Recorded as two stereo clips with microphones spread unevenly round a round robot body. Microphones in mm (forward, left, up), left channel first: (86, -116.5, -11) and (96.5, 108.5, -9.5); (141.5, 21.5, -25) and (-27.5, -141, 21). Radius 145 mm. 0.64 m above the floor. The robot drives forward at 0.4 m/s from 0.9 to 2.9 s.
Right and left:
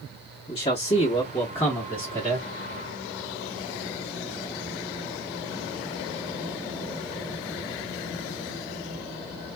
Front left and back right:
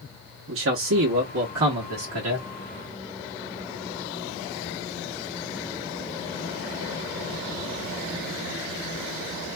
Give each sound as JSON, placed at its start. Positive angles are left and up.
{"t": 0.5, "sound": "a man speaking", "azimuth_deg": -155, "distance_m": 0.8}